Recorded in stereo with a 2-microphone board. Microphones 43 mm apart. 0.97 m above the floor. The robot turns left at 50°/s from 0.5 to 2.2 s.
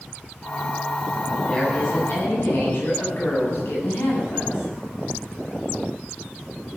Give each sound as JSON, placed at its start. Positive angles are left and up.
{"t": 1.4, "sound": "a woman speaking", "azimuth_deg": 165, "distance_m": 9.0}